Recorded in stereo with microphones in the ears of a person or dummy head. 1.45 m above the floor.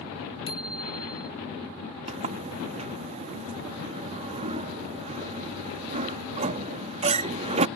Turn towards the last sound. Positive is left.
turn(degrees=-35)  # may be behind; listen again after turning